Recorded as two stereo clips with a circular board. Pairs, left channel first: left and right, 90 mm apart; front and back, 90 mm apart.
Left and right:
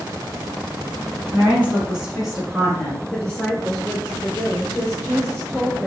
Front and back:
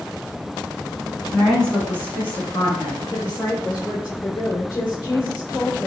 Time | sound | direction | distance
1.3 | a woman speaking | 80° right | 1.3 m
3.1 | a woman speaking | 25° left | 1.5 m